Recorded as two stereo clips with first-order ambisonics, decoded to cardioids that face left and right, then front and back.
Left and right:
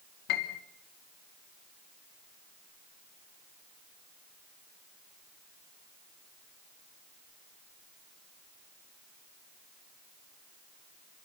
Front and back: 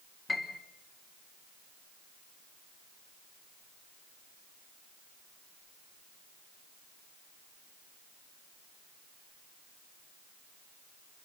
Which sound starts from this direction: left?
A piano, at 0.3 s.